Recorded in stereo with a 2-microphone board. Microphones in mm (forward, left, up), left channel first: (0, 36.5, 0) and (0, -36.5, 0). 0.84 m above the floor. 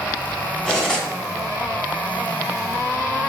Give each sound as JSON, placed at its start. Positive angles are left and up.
{"t": 0.7, "sound": "cutlery clinking", "side_deg": 10, "distance_m": 1.2}